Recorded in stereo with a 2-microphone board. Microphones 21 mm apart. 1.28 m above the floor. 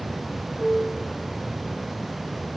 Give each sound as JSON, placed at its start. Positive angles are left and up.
{"t": 0.6, "sound": "a piano", "side_deg": -15, "distance_m": 1.2}